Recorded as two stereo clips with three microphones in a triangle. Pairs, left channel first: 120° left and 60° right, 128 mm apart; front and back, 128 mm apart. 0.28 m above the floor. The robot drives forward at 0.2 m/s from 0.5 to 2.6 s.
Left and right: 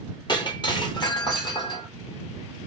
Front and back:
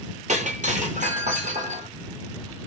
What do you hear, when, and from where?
0.3 s breaking glass: 170° left, 0.9 m